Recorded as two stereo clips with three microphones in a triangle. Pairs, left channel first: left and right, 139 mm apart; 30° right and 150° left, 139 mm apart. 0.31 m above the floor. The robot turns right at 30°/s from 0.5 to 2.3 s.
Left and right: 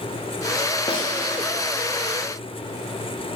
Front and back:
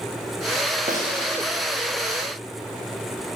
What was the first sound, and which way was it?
A snare drum, 140° left.